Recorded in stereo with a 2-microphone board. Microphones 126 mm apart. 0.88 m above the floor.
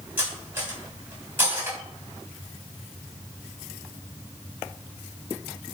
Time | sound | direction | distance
0.2 | cutlery clinking | 15° right (ahead or behind) | 4 m